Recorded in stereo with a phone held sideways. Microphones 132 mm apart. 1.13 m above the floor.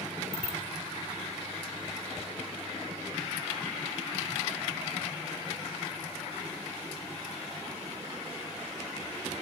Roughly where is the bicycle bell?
Right.